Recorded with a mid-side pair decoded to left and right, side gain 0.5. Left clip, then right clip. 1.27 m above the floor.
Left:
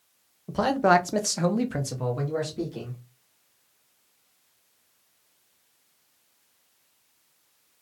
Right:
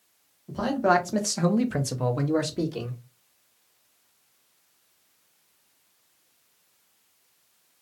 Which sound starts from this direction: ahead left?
A man speaking, at 0.5 s.